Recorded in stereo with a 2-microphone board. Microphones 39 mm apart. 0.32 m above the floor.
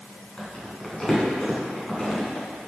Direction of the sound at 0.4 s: 15° left (ahead or behind).